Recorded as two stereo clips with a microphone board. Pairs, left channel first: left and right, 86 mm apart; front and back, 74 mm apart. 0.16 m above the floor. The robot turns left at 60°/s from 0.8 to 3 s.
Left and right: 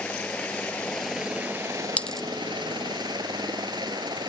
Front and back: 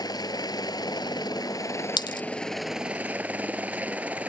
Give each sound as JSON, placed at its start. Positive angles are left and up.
{"t": 0.0, "sound": "a helicopter", "azimuth_deg": 15}
{"t": 2.0, "sound": "a dropped coin", "azimuth_deg": 15}